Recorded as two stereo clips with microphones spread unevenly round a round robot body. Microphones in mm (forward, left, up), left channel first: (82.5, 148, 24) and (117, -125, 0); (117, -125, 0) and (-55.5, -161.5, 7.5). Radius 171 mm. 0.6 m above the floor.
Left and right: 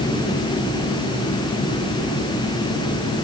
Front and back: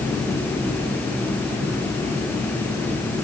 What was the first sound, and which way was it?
Only background noise.